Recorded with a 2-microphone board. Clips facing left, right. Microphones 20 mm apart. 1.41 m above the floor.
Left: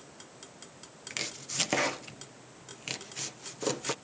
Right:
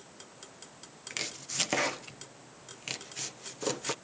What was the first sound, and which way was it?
Chopping, 5° left (ahead or behind).